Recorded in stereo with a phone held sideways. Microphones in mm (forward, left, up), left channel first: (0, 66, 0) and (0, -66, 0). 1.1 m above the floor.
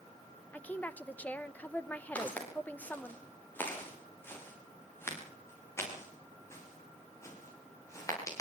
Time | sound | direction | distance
0.5 | a woman speaking | 10° left (ahead or behind) | 1.0 m
2.1 | footsteps | 10° left (ahead or behind) | 10 m